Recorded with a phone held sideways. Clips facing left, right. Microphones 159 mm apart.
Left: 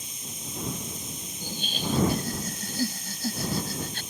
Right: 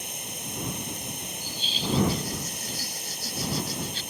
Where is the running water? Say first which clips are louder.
Right 3 dB; 70° right (ahead or behind).